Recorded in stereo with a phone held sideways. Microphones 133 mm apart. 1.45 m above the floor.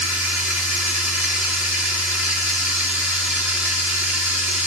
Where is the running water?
10° right (ahead or behind), 1.8 m.